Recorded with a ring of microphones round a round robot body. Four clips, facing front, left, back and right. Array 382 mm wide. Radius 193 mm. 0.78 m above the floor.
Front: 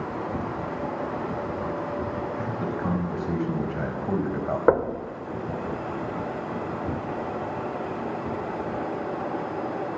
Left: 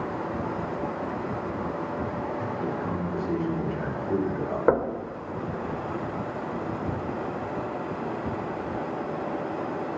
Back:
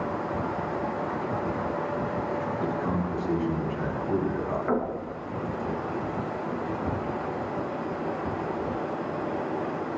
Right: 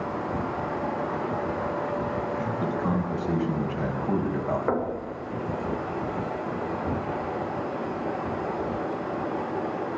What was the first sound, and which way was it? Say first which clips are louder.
A man speaking: right 2 dB, even; 30° right.